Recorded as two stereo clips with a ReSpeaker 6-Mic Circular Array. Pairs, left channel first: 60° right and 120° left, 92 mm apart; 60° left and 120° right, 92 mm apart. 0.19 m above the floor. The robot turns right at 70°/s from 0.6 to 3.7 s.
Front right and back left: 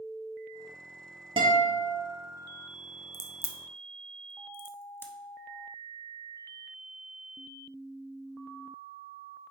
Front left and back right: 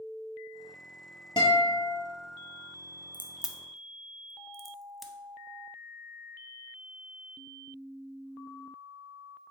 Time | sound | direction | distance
1.4 | a guitar | 95° left | 1.2 m
3.1 | a crack | 70° right | 0.5 m